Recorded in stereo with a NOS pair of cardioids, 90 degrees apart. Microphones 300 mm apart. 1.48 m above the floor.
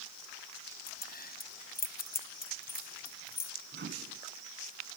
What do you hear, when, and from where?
0.9 s keys jangling: 30° left
3.7 s a microwave: 35° right